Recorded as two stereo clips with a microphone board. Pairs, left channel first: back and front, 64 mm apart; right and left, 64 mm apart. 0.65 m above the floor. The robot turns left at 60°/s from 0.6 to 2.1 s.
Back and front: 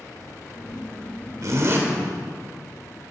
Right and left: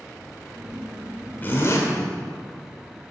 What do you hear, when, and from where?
1.4 s a zipper: 30° right, 1.8 m; by 1.8 s 55° right, 1.8 m